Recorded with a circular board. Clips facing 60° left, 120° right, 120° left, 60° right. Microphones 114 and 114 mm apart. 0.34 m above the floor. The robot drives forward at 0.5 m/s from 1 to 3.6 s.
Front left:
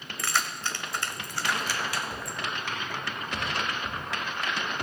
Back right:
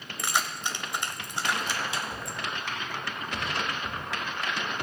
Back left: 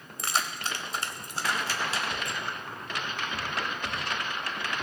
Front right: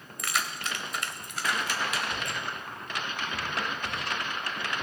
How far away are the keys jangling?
About 0.8 m.